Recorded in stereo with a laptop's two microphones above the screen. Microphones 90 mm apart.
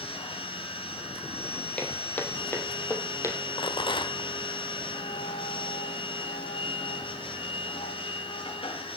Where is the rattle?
65° left (ahead or behind), 1.1 m.